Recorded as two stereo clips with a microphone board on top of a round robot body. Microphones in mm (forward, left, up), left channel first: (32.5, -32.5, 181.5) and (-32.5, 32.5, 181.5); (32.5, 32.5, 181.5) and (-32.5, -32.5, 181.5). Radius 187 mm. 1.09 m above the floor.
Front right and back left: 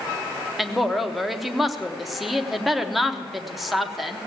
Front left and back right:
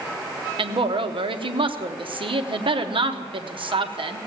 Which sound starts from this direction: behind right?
A woman speaking, at 0.6 s.